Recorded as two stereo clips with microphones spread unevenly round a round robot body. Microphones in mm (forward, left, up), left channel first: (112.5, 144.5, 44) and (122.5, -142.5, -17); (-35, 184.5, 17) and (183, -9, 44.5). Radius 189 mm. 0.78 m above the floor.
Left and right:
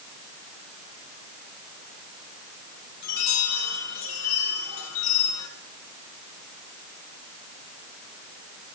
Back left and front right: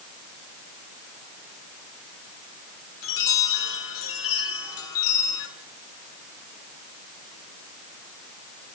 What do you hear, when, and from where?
3.0 s a chime: 145° left, 8.5 m